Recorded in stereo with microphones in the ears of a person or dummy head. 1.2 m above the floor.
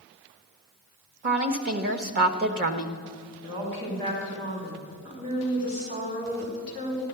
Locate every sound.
1.2 s a woman speaking: 45° right (ahead or behind), 1.3 m
3.4 s a woman speaking: 50° right (ahead or behind), 4.5 m